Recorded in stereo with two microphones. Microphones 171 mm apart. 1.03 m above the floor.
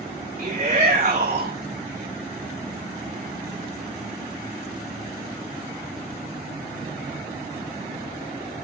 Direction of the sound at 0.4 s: 50° right (ahead or behind).